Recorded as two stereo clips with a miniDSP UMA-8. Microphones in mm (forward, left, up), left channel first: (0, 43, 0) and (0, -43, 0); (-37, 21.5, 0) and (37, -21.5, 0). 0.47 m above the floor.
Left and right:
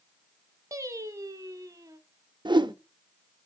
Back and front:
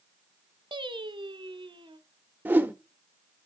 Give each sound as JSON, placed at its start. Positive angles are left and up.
{"t": 0.7, "sound": "singing", "azimuth_deg": -40, "distance_m": 0.7}
{"t": 2.5, "sound": "a whoosh", "azimuth_deg": -95, "distance_m": 0.7}